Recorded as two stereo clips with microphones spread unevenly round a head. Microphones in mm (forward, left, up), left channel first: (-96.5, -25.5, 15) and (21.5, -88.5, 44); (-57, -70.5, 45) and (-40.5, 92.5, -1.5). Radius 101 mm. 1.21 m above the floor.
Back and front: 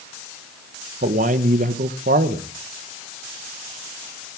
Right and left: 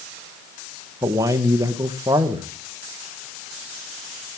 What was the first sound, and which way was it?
A man speaking, 15° left.